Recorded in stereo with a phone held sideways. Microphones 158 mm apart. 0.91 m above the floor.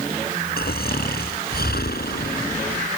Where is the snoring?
80° left.